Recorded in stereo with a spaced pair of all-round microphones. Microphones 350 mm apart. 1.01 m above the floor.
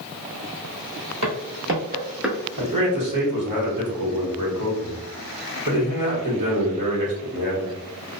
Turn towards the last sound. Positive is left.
turn(degrees=-65)  # may be behind; listen again after turning